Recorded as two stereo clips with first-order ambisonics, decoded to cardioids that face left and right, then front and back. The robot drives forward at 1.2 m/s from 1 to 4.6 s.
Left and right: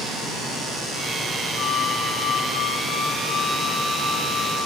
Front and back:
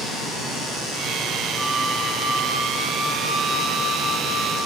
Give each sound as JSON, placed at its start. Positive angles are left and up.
{"t": 1.6, "sound": "a flute", "azimuth_deg": 95, "distance_m": 1.6}